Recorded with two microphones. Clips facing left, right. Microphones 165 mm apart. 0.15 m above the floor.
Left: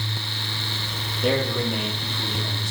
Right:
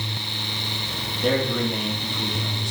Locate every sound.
1.2 s a man speaking: centre (ahead or behind), 4 m